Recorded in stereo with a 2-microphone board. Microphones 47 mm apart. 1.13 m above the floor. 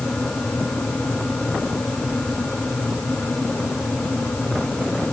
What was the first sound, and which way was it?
Only background noise.